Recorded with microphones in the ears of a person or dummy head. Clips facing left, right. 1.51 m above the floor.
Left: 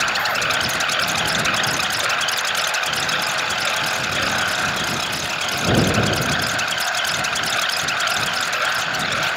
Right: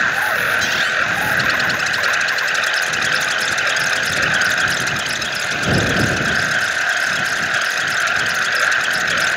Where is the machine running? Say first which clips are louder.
Right 2 dB; 20° right (ahead or behind).